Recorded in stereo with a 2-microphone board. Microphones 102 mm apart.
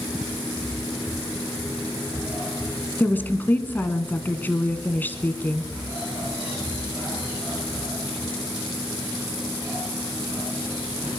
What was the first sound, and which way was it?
A woman speaking, 20° left (ahead or behind).